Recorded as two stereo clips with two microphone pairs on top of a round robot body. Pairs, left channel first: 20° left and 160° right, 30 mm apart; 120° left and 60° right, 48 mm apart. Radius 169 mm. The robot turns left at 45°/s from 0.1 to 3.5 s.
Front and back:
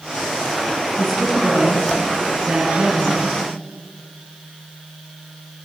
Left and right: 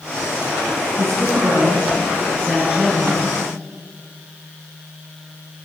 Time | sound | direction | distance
1.0 | a woman speaking | 65° right | 9.5 m